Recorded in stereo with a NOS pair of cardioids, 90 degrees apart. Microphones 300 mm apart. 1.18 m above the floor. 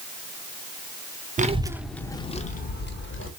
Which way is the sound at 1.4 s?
25° right.